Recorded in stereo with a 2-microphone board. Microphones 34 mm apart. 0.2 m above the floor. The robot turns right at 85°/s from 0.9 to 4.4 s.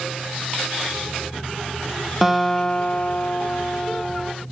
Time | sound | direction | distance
2.2 | a guitar | 10° right | 0.8 m